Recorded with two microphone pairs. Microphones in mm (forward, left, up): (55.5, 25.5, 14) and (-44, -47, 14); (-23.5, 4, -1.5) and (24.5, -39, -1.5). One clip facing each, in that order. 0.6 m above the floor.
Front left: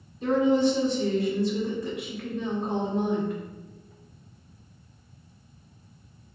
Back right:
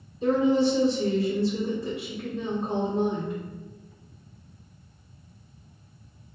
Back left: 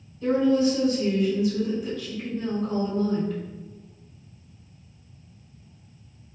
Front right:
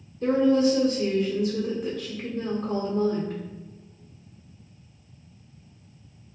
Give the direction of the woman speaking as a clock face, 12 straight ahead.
2 o'clock.